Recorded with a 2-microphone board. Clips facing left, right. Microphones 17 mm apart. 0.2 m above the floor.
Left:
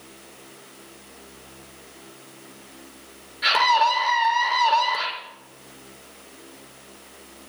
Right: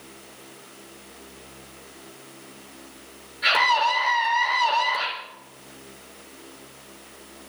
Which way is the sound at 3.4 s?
15° left (ahead or behind).